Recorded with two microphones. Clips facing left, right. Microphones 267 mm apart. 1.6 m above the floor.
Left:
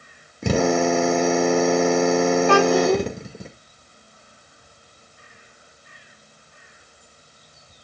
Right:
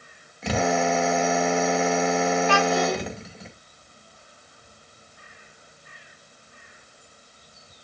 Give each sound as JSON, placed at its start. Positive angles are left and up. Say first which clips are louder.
{"t": 0.4, "sound": "a drill", "louder": "left 5 dB", "side_deg": 50, "distance_m": 2.5}
{"t": 2.5, "sound": "a child speaking", "louder": "left 7 dB", "side_deg": 60, "distance_m": 3.0}